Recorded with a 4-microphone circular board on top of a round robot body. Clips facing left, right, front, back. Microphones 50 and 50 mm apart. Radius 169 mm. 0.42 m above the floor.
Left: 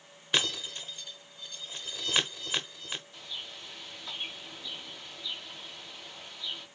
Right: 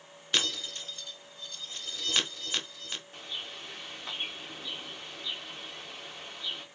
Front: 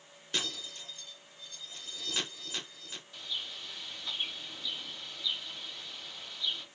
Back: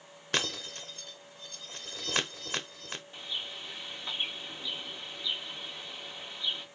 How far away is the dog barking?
I don't hear a dog barking.